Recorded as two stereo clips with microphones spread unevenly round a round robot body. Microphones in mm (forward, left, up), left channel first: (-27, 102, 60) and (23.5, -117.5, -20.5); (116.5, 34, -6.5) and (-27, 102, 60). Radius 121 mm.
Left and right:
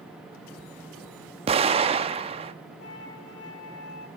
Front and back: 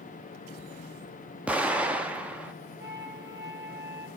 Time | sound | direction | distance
1.5 | an explosion | 105° right | 0.7 m
2.8 | a flute | 135° left | 1.9 m